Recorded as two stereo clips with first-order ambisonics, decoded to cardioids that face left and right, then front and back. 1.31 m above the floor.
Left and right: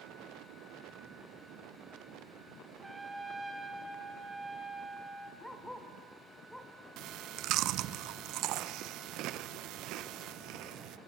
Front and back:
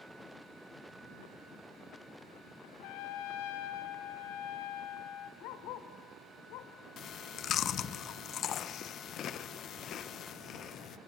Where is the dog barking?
Straight ahead, 1.9 m.